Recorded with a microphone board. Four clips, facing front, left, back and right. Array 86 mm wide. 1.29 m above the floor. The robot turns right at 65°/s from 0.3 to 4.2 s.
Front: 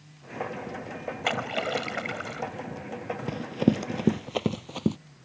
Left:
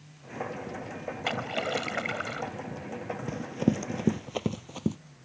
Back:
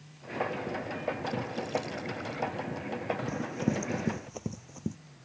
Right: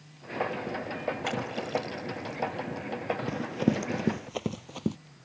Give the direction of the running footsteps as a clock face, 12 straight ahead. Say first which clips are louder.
Left 1 dB, front 11 dB; 1 o'clock.